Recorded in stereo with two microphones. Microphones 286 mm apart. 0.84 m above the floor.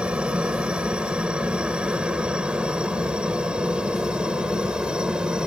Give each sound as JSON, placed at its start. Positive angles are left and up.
{"t": 0.0, "sound": "a helicopter", "side_deg": -5}